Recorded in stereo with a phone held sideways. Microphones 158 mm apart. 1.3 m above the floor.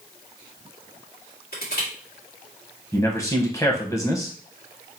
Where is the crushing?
70° left (ahead or behind), 1.9 m.